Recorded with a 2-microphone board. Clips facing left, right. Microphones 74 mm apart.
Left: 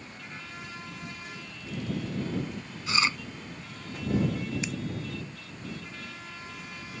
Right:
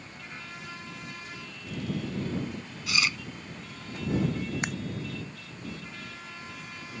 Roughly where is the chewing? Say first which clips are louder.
Left 2 dB; left.